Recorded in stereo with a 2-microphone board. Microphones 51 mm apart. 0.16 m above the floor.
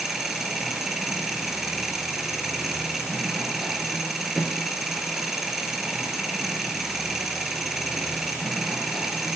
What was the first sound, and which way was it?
An engine running, 5° right (ahead or behind).